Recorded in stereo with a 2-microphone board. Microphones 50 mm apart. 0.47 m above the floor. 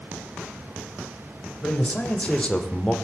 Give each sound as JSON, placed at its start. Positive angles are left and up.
{"t": 1.6, "sound": "a man speaking", "side_deg": 30, "distance_m": 3.0}